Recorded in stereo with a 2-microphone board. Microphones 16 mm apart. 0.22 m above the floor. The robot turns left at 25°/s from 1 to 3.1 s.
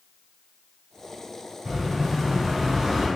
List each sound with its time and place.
1.6 s an explosion: 100° right, 1.3 m; by 3.1 s 135° right, 1.3 m